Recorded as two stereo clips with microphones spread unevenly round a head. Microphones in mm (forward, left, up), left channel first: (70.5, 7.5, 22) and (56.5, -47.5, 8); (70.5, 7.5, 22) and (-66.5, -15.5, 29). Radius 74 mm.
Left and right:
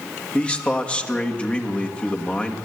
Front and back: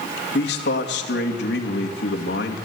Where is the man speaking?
10° left, 2.5 m.